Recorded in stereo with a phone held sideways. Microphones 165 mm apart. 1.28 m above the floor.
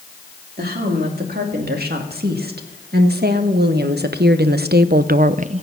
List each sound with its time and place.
0.6 s a woman speaking: 70° right (ahead or behind), 3 m; by 5.6 s 40° right (ahead or behind), 0.6 m